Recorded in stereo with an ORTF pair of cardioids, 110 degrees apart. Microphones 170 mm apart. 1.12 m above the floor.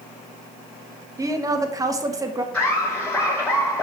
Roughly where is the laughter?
Ahead.